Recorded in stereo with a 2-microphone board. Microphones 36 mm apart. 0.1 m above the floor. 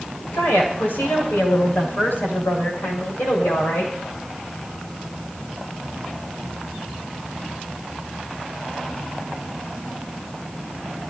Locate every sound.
0.3 s a woman speaking: 80° left, 8 m; by 3.9 s 70° left (ahead or behind), 8.5 m